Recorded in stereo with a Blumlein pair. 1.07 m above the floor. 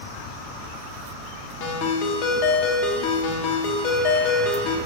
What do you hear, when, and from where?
1.6 s a ringtone: 40° left, 1.1 m